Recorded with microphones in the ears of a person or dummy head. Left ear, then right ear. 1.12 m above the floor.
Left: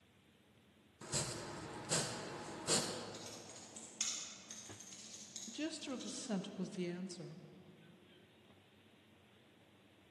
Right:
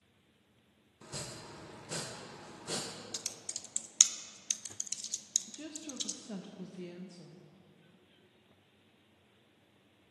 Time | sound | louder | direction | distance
1.0 | chopping | left 2 dB | 10° left (ahead or behind) | 0.6 m
3.1 | typing on a keyboard | right 9 dB | 50° right (ahead or behind) | 0.7 m
5.5 | a woman speaking | left 2 dB | 25° left (ahead or behind) | 0.6 m